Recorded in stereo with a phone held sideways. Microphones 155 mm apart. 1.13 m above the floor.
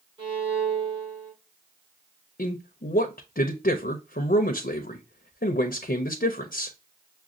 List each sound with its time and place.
0.2 s a violin: 40° right (ahead or behind), 3.5 m
2.4 s a man speaking: 80° left, 0.6 m